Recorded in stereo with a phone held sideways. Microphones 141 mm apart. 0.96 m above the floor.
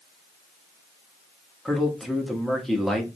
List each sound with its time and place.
1.6 s a man speaking: centre (ahead or behind), 1.2 m